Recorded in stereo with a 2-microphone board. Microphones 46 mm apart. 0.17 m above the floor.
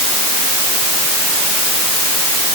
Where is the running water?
No running water in this recording.